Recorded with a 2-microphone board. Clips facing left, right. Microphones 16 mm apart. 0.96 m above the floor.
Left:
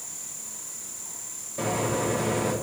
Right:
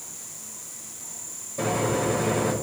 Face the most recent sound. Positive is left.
turn(degrees=10)  # may be behind; listen again after turning